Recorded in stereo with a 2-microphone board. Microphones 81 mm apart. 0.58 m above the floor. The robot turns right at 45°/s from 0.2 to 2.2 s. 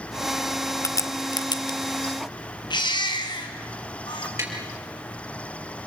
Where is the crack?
40° left (ahead or behind), 1.0 m; by 1.8 s 70° left (ahead or behind), 1.0 m.